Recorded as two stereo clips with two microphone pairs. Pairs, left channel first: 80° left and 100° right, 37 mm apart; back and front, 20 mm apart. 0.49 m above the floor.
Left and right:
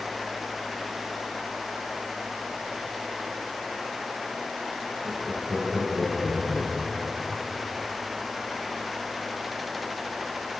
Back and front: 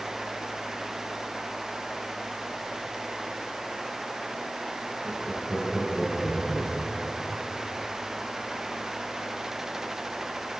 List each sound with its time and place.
5.0 s laughter: 90° right, 10 m; by 7.4 s 105° right, 8.5 m